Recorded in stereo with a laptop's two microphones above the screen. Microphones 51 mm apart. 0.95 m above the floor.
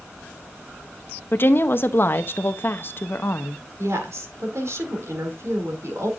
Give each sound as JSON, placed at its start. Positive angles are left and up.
{"t": 1.3, "sound": "a woman speaking", "side_deg": 45, "distance_m": 0.7}
{"t": 3.8, "sound": "a woman speaking", "side_deg": -65, "distance_m": 2.5}